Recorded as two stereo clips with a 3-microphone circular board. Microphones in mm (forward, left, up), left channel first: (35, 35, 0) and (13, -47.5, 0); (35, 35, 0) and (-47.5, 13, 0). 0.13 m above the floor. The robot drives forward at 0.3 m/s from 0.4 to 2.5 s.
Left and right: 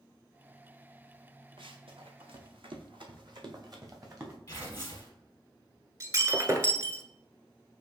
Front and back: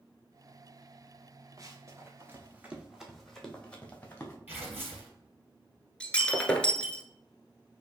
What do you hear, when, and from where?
1.6 s running footsteps: 115° right, 1.8 m; by 4.4 s 50° right, 3 m
4.5 s tearing paper: 130° left, 2.5 m
6.0 s breaking glass: 60° right, 1.0 m